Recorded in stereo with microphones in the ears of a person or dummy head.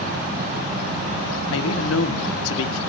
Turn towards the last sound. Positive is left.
turn(degrees=90)